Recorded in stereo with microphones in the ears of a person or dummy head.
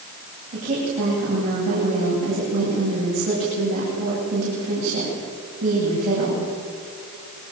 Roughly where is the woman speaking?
Right.